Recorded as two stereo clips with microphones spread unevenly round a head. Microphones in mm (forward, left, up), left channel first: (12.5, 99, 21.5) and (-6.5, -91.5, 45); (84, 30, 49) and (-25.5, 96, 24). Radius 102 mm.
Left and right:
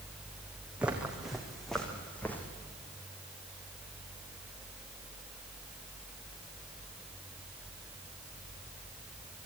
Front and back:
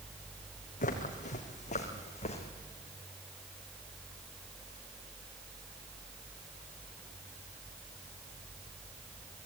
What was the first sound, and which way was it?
Footsteps, 15° right.